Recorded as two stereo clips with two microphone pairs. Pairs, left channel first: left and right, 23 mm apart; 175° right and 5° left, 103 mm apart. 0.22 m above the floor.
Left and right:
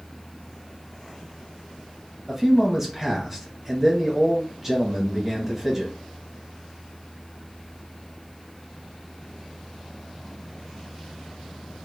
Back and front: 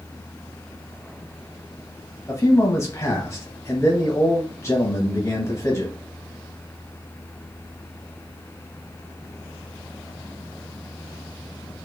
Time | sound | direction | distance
2.3 | a man speaking | 150° right | 1.1 m